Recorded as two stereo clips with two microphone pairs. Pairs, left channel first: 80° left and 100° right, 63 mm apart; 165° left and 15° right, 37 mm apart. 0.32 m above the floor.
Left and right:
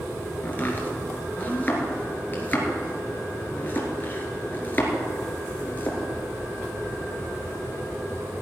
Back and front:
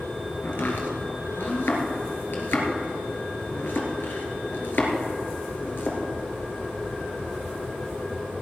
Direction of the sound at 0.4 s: 140° left.